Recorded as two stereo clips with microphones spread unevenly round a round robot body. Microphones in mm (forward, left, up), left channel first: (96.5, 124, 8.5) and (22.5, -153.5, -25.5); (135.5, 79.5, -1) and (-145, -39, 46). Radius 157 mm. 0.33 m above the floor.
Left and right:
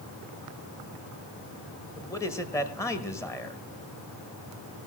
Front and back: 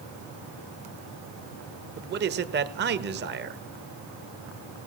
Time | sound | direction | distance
2.0 | a man speaking | 160° left | 1.0 m